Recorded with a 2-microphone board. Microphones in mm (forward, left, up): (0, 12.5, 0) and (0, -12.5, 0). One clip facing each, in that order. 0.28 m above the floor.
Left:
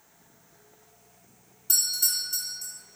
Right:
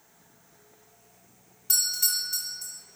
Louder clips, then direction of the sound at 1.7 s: Even; 10° right (ahead or behind).